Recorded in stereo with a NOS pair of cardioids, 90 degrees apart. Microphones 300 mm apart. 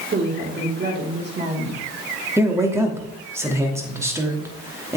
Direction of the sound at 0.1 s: 35° right.